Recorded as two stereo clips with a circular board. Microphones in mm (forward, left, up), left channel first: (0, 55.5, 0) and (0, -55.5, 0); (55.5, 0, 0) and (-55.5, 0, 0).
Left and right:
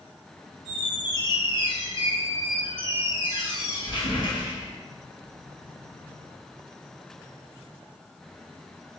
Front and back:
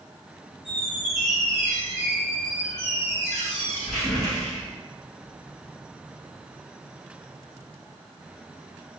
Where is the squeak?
85° left, 1.2 m.